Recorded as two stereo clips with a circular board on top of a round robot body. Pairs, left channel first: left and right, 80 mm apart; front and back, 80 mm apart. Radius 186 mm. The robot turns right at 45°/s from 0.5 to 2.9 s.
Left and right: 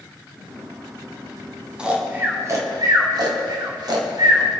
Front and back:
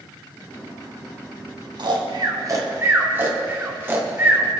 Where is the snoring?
170° right, 2 m; by 4.4 s 120° right, 2 m.